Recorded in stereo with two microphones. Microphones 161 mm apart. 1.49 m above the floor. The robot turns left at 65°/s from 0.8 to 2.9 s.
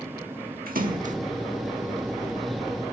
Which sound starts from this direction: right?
A splash, at 0.7 s.